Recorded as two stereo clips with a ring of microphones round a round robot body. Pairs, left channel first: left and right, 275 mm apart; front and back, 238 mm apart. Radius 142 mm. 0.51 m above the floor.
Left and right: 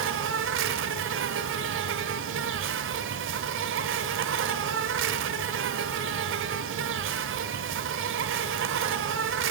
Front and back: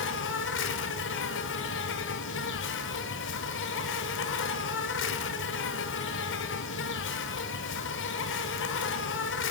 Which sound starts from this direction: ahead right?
An insect, at 0.0 s.